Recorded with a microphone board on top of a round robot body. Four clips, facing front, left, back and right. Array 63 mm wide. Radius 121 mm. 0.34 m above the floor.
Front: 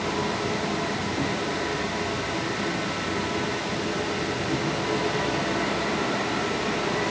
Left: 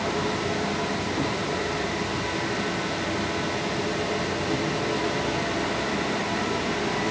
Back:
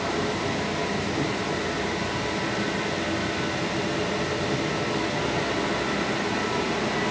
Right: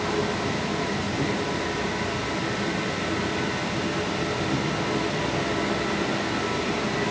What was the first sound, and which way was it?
Only background noise.